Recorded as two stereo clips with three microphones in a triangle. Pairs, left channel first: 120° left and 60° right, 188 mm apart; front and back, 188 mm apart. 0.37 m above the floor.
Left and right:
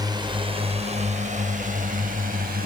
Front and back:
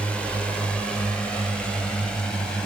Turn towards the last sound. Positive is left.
turn(degrees=-85)